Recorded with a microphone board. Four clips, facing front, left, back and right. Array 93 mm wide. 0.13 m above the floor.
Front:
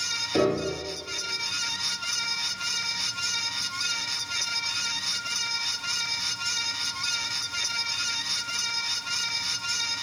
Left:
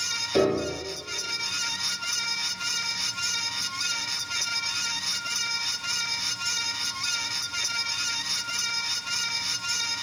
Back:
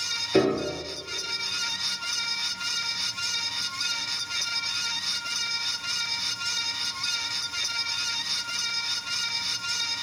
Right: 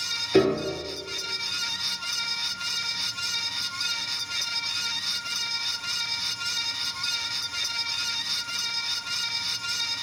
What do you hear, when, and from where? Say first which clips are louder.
0.3 s a piano: right 2 dB, back 1 dB; 120° right, 1.3 m